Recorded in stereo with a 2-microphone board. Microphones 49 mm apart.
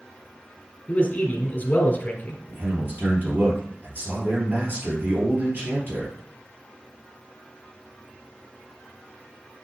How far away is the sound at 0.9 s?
About 1.9 m.